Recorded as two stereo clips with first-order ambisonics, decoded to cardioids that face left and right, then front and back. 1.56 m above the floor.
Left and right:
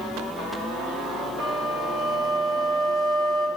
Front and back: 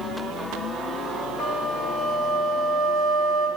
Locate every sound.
1.4 s a flute: 45° right, 3 m